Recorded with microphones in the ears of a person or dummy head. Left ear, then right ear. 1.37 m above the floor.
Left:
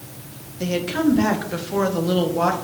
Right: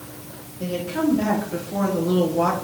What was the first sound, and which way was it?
A woman speaking, 70° left (ahead or behind).